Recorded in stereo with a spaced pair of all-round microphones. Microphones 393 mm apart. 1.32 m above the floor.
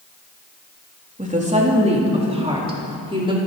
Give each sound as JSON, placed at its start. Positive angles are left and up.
{"t": 1.2, "sound": "a woman speaking", "side_deg": -20, "distance_m": 3.0}